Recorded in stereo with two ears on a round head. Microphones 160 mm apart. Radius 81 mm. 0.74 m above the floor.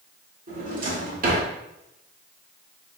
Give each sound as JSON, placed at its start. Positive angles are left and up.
{"t": 0.5, "sound": "a drawer", "side_deg": -50, "distance_m": 1.4}